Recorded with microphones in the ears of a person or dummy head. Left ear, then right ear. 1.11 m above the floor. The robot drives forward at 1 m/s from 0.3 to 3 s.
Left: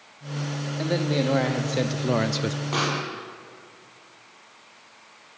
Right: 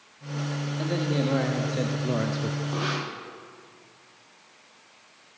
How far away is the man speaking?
About 2 m.